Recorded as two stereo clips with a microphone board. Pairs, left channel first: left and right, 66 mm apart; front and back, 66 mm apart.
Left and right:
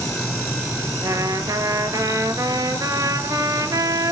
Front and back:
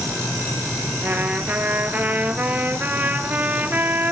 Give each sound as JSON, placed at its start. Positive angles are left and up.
{"t": 1.0, "sound": "a trumpet", "azimuth_deg": -115, "distance_m": 0.9}